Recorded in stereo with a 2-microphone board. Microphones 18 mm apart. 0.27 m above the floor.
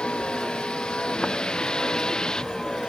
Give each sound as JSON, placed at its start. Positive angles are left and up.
{"t": 0.0, "sound": "a vehicle", "side_deg": 70}